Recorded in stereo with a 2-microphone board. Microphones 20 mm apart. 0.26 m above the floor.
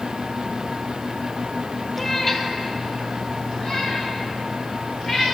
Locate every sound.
2.0 s a cat meowing: 5° left (ahead or behind), 1.0 m; by 5.3 s 30° left (ahead or behind), 3.5 m